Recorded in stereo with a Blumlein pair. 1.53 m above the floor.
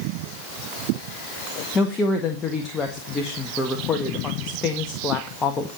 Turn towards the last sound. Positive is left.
turn(degrees=20)